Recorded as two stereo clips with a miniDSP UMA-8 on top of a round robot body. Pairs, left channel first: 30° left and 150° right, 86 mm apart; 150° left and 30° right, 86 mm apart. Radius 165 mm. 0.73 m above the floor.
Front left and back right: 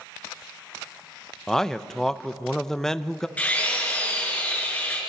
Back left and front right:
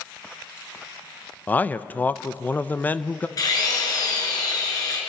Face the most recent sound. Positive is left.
turn(degrees=105)